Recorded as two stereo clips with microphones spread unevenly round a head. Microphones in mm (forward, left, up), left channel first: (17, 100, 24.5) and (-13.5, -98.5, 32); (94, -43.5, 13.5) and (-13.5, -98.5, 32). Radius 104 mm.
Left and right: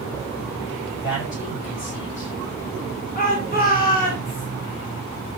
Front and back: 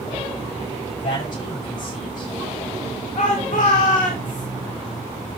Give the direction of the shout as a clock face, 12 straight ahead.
11 o'clock.